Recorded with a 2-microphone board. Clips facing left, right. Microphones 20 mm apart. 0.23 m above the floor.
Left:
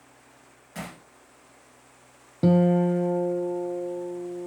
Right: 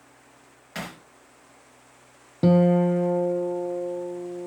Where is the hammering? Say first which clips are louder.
Right 3 dB; 55° right (ahead or behind), 2 m.